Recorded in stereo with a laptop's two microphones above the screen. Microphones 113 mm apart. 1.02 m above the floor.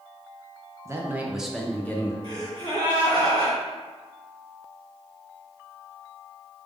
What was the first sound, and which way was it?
A man speaking, 25° right (ahead or behind).